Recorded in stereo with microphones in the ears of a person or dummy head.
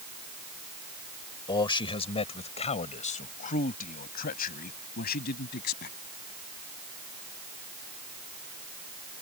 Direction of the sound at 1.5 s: 25° left (ahead or behind).